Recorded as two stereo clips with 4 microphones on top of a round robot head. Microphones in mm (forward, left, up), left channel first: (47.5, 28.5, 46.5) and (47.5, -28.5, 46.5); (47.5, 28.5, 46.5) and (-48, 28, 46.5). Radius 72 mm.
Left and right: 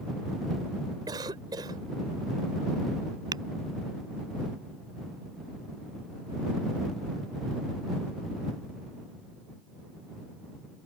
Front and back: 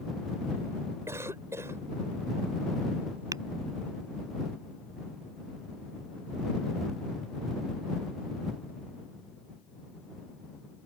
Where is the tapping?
115° right.